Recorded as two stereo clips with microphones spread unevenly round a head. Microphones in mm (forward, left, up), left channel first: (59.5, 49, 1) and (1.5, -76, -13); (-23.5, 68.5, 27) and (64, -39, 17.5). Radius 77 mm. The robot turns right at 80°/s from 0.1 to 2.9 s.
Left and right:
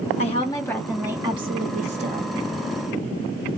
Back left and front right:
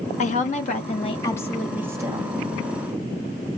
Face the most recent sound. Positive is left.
turn(degrees=-40)